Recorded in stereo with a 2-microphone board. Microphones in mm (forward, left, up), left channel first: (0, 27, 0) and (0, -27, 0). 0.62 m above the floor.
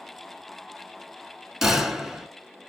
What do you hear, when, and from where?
1.6 s a gunshot: 5° right (ahead or behind), 1.1 m